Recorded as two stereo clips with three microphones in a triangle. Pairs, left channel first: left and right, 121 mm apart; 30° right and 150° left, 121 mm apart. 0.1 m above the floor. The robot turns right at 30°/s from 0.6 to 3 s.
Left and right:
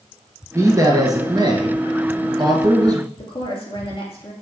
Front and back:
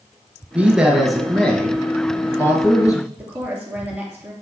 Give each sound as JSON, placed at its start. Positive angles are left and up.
{"t": 0.6, "sound": "a man speaking", "azimuth_deg": -135, "distance_m": 1.4}
{"t": 3.2, "sound": "a woman speaking", "azimuth_deg": 80, "distance_m": 2.5}